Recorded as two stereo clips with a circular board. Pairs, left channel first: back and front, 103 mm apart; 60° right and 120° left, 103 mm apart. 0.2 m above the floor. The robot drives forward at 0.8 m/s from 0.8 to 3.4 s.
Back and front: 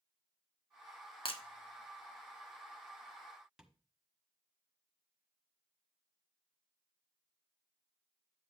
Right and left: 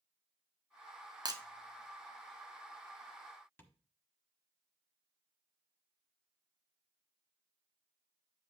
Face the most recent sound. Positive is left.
turn(degrees=-75)